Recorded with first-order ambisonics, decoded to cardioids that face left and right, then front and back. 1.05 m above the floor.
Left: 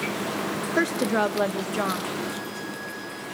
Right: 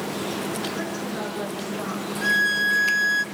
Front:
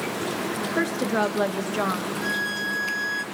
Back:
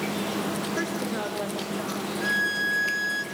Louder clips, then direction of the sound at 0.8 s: Left 7 dB, front 5 dB; 75° left.